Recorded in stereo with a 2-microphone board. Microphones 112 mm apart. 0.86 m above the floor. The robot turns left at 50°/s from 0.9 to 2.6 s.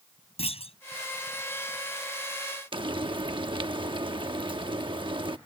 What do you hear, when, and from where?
0.4 s a clunk: 65° left (ahead or behind)
2.7 s frying: 45° right (ahead or behind)